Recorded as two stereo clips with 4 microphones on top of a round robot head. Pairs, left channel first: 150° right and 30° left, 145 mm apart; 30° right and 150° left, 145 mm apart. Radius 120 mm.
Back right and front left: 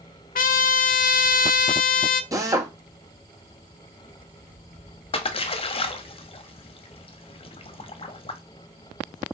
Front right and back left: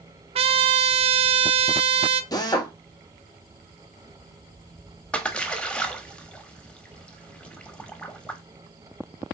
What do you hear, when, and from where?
0.3 s a trumpet: 165° right, 0.6 m
2.3 s a drill: 5° right, 1.2 m
5.1 s a splash: 115° right, 0.9 m